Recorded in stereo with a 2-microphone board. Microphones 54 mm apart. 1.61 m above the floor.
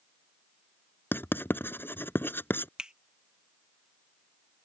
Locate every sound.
1.1 s writing: 40° left (ahead or behind)
2.8 s a finger snap: 15° right (ahead or behind)